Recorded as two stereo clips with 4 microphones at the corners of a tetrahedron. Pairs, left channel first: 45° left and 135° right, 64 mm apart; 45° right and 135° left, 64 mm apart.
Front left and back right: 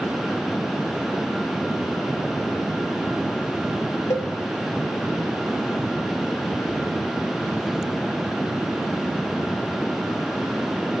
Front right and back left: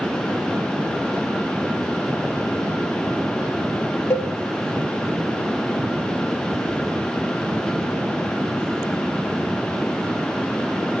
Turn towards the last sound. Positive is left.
turn(degrees=5)